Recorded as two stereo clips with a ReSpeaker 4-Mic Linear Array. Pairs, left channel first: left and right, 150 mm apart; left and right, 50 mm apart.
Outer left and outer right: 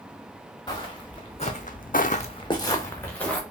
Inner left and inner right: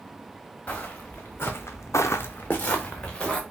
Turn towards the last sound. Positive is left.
turn(degrees=10)  # may be behind; listen again after turning